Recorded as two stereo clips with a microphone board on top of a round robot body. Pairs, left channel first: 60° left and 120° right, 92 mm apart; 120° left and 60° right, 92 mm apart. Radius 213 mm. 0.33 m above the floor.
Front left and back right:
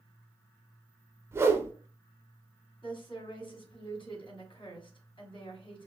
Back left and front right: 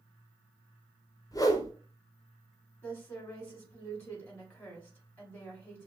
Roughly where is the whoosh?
Behind.